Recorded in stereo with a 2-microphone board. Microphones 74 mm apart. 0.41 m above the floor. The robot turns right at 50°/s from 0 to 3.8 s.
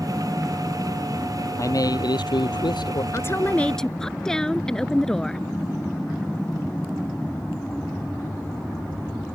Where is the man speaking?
45° left; by 3.0 s 115° left.